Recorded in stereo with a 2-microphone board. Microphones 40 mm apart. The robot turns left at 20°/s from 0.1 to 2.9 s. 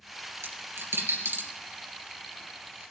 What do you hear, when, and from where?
0.4 s a dropped coin: 80° right, 3 m; by 1.5 s 55° right (ahead or behind), 3 m